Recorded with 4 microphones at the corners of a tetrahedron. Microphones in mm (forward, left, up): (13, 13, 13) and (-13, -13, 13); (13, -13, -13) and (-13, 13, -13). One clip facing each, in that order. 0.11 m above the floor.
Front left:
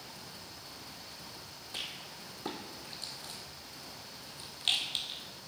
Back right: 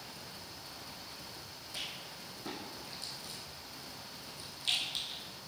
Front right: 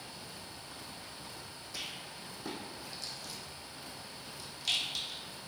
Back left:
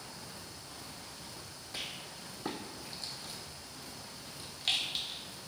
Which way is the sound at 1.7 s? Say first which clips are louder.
Front left 1 dB, back left 1 dB; 85° left.